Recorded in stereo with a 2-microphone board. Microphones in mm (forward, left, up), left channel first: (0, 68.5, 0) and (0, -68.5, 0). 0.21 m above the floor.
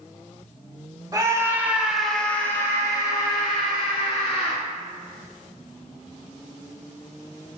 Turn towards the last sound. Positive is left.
turn(degrees=45)  # may be behind; listen again after turning